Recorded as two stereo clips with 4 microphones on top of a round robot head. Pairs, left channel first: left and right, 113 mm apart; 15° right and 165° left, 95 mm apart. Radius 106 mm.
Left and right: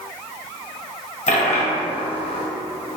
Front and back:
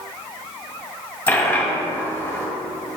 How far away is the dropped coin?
About 1.6 m.